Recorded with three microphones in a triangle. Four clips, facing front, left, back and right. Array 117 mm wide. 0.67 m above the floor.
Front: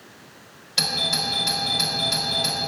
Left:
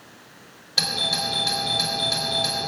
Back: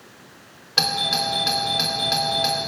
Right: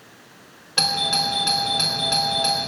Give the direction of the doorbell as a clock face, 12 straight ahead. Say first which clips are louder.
Right 4 dB, back 4 dB; 5 o'clock.